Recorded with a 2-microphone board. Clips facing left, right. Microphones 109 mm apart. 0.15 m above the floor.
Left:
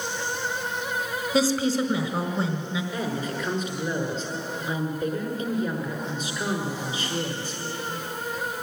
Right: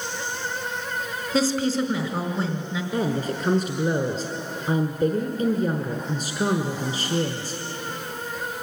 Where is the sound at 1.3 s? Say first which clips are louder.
Even; centre (ahead or behind), 1.2 m.